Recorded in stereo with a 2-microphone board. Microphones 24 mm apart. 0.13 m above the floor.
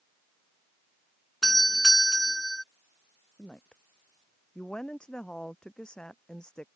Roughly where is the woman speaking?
Left.